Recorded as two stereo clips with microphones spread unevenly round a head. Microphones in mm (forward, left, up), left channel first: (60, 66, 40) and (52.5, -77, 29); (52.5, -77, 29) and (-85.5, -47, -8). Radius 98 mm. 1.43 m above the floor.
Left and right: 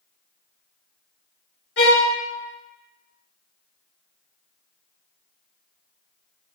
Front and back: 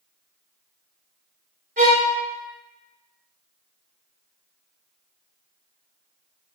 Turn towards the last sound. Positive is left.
turn(degrees=110)